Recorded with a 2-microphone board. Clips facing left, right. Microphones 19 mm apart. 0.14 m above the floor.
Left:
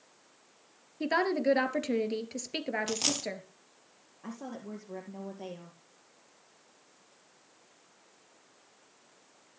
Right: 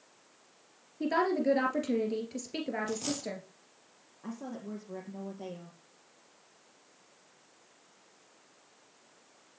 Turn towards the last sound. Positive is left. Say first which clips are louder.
# right 1 dB
turn(degrees=25)  # may be behind; listen again after turning